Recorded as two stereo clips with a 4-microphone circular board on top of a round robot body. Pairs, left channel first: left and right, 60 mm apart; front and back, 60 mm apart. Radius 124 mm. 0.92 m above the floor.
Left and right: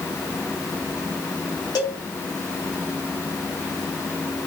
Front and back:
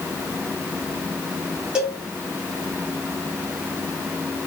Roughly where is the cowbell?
Left.